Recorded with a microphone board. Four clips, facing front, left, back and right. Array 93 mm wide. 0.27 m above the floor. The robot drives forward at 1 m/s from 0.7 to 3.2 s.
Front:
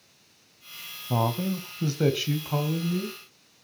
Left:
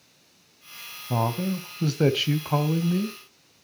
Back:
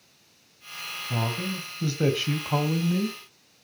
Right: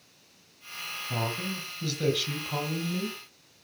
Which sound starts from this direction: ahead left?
A man speaking, at 1.1 s.